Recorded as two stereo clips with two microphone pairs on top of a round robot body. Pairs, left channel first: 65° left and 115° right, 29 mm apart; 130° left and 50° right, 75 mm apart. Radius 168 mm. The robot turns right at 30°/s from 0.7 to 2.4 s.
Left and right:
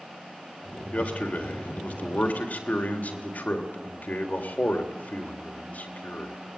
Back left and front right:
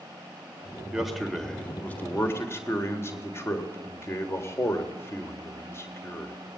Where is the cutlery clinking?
No cutlery clinking in this recording.